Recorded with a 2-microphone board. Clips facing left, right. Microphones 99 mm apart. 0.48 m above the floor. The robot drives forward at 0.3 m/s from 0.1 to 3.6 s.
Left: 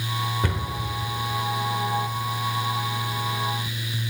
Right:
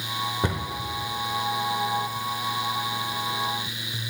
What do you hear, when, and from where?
0.4 s a cupboard door: 20° right (ahead or behind), 0.8 m; by 0.6 s 25° right (ahead or behind), 0.8 m